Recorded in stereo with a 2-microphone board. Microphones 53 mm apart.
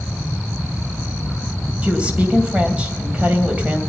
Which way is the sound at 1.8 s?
25° right (ahead or behind).